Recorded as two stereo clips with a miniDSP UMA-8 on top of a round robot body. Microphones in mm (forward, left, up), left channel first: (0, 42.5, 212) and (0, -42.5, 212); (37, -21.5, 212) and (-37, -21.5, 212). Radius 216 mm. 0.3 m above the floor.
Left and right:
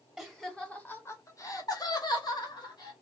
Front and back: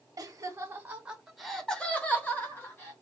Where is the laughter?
Straight behind, 1.1 m; by 2.9 s 55° left, 1.7 m.